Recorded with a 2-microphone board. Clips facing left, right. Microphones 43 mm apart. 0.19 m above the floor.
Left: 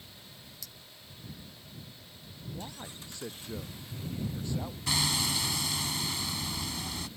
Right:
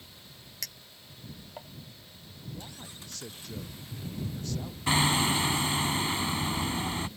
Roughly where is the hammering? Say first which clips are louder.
Right 6 dB; right.